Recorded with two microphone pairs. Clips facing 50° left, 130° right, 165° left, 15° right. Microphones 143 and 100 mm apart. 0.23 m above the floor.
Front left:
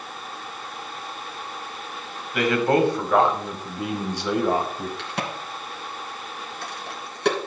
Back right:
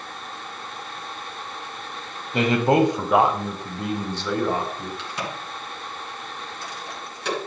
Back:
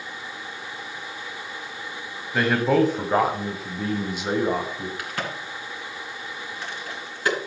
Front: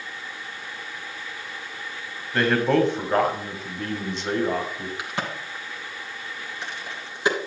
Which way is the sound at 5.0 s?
50° left.